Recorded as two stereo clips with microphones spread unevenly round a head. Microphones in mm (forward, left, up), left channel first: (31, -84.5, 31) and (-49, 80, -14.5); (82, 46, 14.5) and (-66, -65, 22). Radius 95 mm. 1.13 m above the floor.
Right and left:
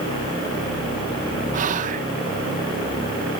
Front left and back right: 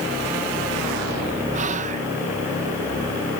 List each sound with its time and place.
1.5 s whispering: 160° left